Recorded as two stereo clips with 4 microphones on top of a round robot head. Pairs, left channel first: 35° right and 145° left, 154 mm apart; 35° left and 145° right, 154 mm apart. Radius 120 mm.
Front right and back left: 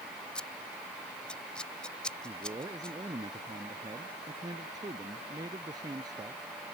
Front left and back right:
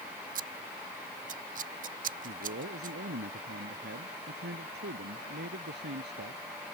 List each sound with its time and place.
0.3 s scissors: 120° right
2.2 s a man speaking: 150° right